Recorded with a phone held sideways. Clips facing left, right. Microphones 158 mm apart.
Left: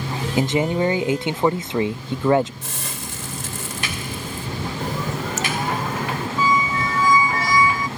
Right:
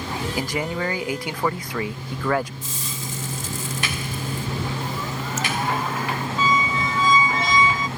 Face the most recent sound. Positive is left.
turn(degrees=-25)  # may be behind; listen again after turning